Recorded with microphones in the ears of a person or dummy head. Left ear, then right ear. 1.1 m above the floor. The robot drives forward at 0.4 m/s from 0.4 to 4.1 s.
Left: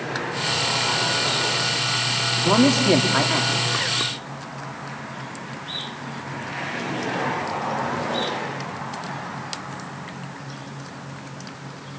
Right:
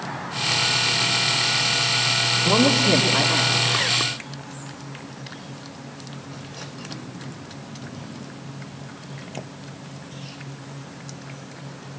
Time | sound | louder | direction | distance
2.4 | a man speaking | left 2 dB | 75° left (ahead or behind) | 2 m